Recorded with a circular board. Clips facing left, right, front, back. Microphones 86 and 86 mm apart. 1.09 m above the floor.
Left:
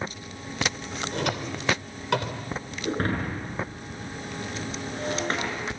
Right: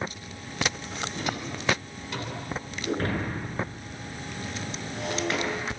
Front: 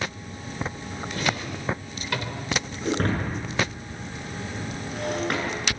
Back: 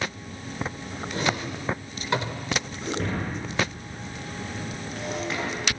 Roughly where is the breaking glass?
Ahead left.